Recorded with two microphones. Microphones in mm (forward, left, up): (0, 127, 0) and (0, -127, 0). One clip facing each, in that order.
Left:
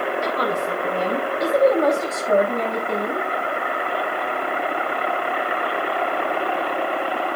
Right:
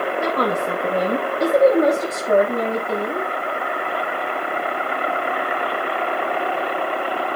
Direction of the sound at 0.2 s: 65° right (ahead or behind).